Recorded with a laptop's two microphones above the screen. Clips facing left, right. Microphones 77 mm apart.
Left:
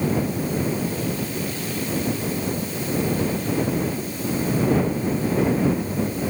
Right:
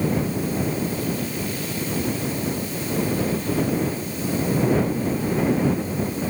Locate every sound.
Only background noise.